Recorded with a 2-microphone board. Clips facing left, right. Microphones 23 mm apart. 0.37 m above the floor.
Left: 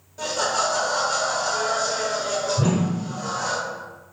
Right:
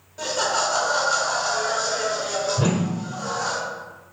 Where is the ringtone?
I don't hear a ringtone.